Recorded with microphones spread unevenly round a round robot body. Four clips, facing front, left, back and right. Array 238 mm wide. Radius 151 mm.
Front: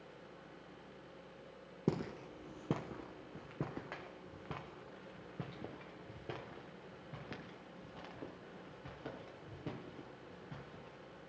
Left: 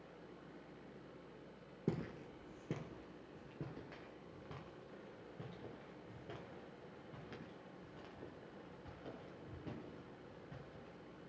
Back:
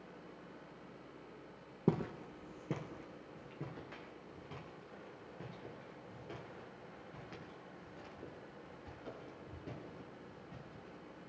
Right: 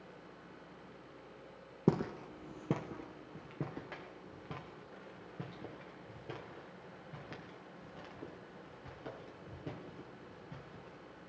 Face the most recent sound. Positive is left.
turn(degrees=-20)